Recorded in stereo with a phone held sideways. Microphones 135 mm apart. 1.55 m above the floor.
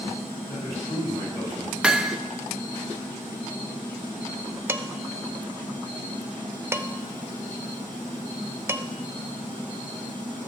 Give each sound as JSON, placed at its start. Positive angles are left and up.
{"t": 0.5, "sound": "a man speaking", "side_deg": 30, "distance_m": 7.5}
{"t": 1.8, "sound": "hammering", "side_deg": -5, "distance_m": 0.7}
{"t": 4.7, "sound": "dishes clattering", "side_deg": -20, "distance_m": 0.7}